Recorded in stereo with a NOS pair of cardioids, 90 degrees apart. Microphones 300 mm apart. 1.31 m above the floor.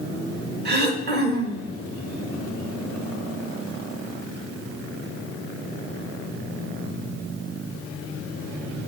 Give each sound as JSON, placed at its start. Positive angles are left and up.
{"t": 0.7, "sound": "throat clearing", "azimuth_deg": -35, "distance_m": 1.5}